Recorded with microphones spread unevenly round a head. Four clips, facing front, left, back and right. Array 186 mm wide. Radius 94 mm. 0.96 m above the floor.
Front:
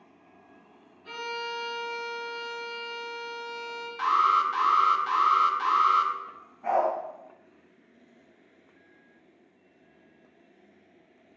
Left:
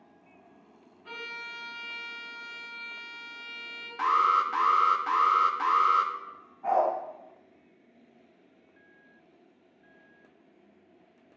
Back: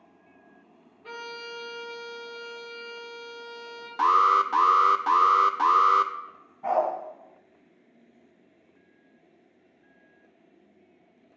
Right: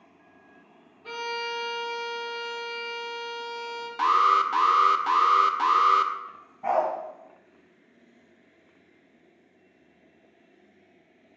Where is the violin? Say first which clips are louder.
Right 10 dB, front 4 dB; 130° right, 4 m.